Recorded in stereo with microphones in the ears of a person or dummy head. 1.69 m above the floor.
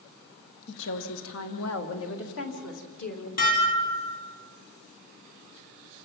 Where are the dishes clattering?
40° left (ahead or behind), 3.5 m.